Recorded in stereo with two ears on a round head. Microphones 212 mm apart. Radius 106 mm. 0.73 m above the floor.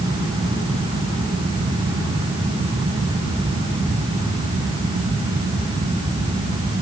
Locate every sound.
Only background noise.